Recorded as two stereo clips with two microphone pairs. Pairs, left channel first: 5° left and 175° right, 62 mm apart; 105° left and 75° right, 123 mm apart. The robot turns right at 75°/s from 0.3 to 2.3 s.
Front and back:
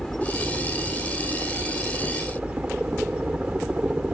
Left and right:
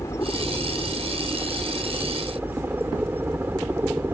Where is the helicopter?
85° left; by 4.1 s 125° right.